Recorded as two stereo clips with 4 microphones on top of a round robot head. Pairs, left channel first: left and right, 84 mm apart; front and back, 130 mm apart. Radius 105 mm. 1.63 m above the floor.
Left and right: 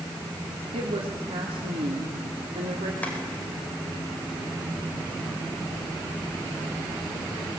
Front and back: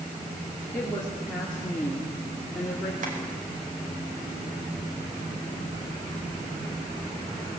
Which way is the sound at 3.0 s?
160° left.